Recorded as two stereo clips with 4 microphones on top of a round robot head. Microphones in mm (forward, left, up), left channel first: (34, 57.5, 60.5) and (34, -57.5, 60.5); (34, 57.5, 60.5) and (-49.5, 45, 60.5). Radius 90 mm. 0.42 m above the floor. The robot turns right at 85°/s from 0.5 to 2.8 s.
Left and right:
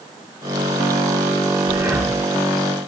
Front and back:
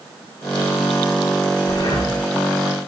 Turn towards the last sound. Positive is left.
turn(degrees=65)